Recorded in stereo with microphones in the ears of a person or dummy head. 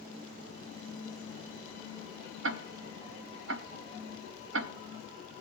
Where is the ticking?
80° right, 0.5 m.